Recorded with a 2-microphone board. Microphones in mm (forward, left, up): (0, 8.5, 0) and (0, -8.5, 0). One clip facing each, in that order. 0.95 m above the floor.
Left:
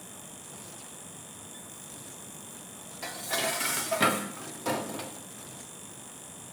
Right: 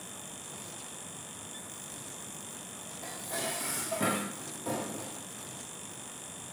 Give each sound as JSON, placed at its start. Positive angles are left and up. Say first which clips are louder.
{"t": 3.0, "sound": "dishes clattering", "louder": "left 6 dB", "side_deg": 85, "distance_m": 1.1}